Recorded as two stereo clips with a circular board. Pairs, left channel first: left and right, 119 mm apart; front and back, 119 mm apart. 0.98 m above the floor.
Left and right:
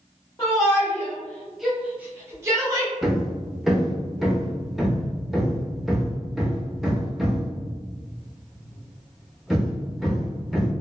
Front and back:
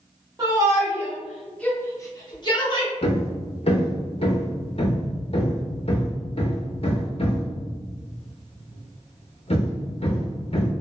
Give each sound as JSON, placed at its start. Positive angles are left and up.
{"t": 0.4, "sound": "a shout", "azimuth_deg": 140, "distance_m": 0.9}
{"t": 3.0, "sound": "hammering", "azimuth_deg": 0, "distance_m": 0.6}